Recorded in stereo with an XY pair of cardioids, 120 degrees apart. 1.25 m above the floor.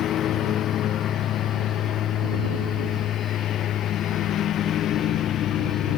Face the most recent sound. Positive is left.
turn(degrees=55)